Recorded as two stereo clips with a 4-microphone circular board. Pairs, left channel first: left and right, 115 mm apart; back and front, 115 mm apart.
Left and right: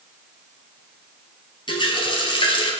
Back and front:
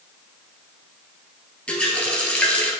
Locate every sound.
1.7 s a running tap: 105° left, 1.2 m